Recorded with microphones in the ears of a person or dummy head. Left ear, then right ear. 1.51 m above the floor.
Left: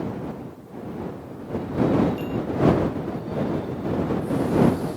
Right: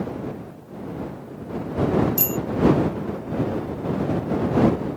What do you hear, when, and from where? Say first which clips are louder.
2.2 s a bicycle bell: right 2 dB; 60° right (ahead or behind)